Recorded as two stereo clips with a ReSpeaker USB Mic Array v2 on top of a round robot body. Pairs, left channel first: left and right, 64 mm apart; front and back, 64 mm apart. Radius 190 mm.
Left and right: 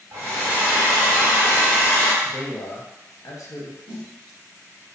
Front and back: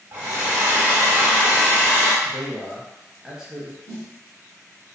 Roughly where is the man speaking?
Left.